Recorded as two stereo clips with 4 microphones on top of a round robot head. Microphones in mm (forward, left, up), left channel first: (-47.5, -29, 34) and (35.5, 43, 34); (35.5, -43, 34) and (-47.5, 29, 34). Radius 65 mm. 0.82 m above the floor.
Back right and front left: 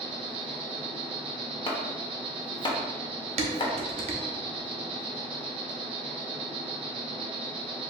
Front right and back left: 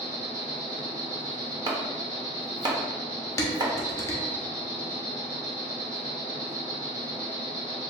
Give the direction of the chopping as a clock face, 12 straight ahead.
6 o'clock.